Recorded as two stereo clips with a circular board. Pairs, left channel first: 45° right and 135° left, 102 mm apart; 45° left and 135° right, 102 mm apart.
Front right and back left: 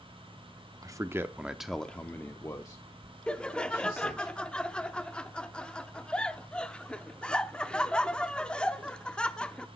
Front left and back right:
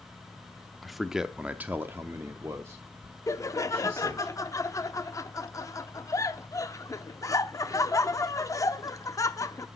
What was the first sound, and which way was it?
A man speaking, 135° left.